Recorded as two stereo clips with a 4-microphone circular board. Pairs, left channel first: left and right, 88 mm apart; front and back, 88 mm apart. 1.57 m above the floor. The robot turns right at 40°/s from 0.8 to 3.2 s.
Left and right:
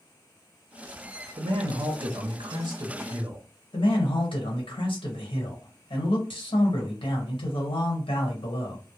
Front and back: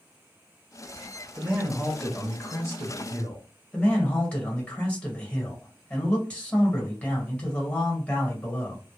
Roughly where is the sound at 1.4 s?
Right.